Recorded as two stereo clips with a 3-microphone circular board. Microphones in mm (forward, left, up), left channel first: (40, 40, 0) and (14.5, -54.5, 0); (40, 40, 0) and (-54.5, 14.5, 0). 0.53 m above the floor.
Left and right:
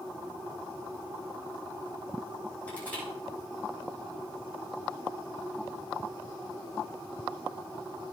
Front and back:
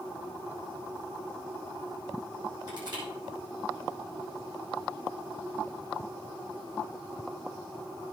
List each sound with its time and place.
2.7 s crushing: 150° left, 6 m